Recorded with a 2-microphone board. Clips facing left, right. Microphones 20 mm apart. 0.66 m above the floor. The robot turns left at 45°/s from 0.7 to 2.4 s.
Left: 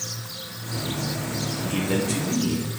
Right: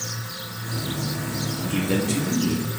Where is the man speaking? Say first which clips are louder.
Right 1 dB; centre (ahead or behind), 0.6 m; by 2.7 s 15° right (ahead or behind), 0.6 m.